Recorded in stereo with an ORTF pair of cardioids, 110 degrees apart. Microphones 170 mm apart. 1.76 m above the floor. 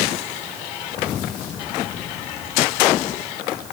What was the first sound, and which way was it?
Only background noise.